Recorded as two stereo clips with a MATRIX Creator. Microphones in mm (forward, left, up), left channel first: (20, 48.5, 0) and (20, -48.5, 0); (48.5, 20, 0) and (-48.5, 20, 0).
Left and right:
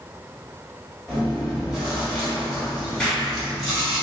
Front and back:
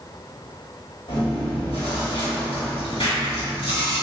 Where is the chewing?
Straight ahead, 1.6 m.